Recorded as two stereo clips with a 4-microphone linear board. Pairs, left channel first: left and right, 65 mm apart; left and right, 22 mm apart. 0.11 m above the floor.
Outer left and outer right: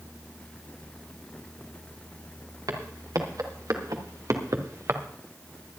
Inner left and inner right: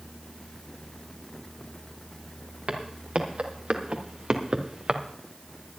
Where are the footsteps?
75° right (ahead or behind), 3 m; by 5.0 s 45° right (ahead or behind), 1.4 m.